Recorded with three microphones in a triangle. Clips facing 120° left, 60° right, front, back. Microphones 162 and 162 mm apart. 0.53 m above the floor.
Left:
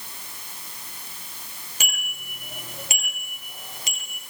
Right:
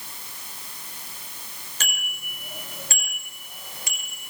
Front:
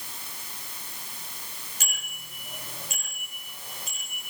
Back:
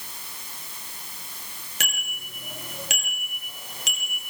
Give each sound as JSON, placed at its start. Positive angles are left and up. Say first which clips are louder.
{"t": 1.8, "sound": "a bicycle bell", "louder": "even, back 6 dB", "azimuth_deg": -160, "distance_m": 7.0}